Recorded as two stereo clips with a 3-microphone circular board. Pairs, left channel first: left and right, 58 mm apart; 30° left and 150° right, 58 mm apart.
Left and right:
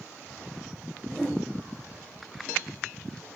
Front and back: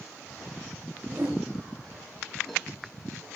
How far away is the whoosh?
About 5.5 m.